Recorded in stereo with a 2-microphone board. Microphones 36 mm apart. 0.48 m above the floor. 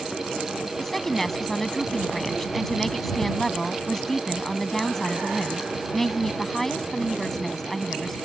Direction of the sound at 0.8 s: 10° left (ahead or behind).